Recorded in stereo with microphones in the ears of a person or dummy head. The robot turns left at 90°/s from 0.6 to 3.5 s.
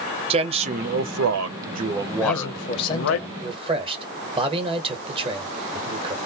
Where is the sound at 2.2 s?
90° left, 1.2 m; by 6.2 s 30° right, 1.2 m.